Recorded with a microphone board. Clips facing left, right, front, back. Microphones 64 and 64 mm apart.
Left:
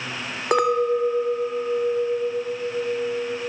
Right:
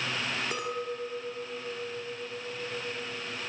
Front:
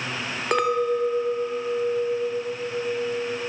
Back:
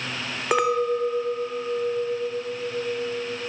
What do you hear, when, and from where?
0.5 s a clink: 95° left, 1.8 m